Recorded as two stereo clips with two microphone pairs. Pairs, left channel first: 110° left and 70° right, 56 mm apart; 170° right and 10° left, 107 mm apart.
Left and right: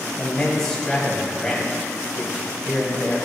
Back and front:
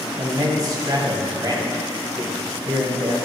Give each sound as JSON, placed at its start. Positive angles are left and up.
{"t": 0.2, "sound": "a man speaking", "azimuth_deg": 30, "distance_m": 1.9}